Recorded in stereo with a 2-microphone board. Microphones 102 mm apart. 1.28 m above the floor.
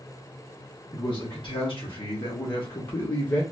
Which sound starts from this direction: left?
A man speaking, at 0.9 s.